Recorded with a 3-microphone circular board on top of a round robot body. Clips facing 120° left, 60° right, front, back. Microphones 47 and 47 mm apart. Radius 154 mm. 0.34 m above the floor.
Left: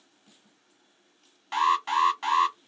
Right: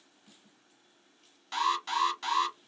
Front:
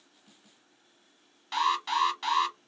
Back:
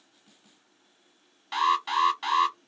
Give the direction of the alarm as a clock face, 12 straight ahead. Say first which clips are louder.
Left 6 dB, back 3 dB; 9 o'clock.